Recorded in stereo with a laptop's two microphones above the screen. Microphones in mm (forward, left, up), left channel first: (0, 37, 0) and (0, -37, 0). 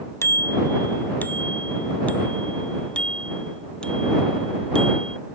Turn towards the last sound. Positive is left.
turn(degrees=10)  # may be behind; listen again after turning